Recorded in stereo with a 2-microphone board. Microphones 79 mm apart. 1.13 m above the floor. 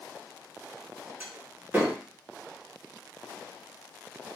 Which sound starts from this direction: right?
A door slam, at 1.2 s.